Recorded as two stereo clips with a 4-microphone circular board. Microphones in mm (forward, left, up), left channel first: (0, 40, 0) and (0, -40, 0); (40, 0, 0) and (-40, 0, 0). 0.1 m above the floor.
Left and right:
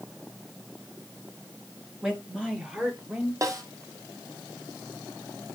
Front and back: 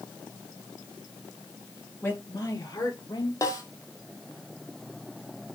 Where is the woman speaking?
25° right, 1.3 m.